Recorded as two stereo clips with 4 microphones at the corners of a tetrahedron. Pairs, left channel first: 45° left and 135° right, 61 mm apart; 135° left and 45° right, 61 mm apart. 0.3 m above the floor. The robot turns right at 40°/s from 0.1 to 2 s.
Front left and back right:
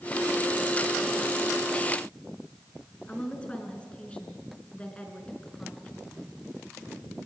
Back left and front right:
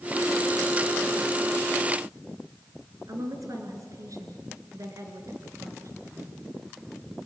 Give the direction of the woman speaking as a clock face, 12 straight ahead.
1 o'clock.